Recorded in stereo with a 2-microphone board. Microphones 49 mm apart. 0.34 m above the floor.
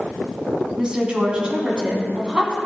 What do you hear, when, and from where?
0.8 s a woman speaking: 20° right (ahead or behind), 3 m